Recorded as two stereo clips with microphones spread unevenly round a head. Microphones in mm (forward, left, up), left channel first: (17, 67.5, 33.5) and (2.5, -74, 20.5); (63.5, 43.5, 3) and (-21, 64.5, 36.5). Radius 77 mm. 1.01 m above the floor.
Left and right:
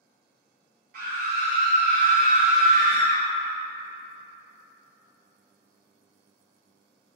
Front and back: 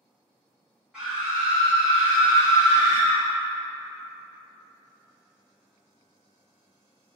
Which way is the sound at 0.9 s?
105° right.